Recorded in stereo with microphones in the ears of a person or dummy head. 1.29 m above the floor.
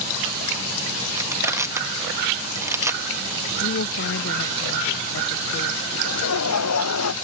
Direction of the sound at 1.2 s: 20° right (ahead or behind).